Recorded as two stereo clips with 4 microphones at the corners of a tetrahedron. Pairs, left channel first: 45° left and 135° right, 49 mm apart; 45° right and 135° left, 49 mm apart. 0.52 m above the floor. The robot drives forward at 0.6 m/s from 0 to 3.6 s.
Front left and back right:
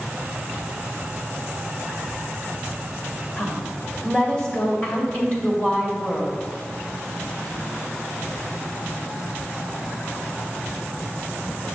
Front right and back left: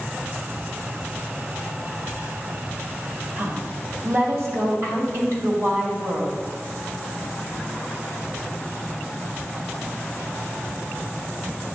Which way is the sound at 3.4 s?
110° left.